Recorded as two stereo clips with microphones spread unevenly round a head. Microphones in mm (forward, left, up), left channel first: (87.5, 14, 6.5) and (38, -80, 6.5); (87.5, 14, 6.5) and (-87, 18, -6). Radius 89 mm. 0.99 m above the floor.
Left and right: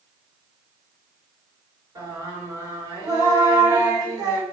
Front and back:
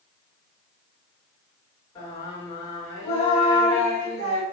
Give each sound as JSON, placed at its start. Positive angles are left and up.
{"t": 1.9, "sound": "singing", "azimuth_deg": -65, "distance_m": 4.0}